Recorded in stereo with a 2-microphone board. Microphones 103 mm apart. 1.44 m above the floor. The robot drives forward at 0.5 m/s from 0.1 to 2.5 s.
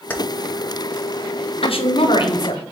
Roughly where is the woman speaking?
Left.